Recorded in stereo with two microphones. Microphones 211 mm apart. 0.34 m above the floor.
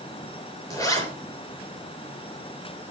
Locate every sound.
0.7 s a zipper: 15° left (ahead or behind), 4.5 m